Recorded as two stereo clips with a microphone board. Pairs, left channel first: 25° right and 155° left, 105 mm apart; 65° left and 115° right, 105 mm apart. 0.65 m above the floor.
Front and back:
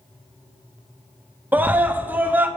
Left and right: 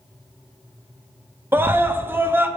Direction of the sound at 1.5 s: 155° right.